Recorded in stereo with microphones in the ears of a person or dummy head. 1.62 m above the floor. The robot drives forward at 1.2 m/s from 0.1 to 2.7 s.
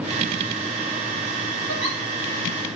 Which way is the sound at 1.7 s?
60° right (ahead or behind).